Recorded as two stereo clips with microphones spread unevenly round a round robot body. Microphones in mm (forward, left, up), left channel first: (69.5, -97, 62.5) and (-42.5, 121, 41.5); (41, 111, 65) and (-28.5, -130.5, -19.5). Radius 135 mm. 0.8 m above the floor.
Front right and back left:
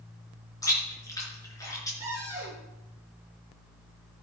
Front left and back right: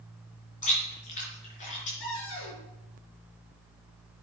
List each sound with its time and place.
0.6 s chewing: 15° left, 4.5 m
2.0 s a cupboard door: 35° left, 4.5 m